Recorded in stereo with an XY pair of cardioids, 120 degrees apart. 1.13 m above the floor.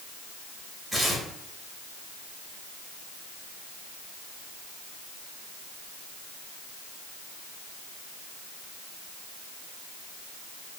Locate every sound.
0.9 s tearing paper: straight ahead, 2.5 m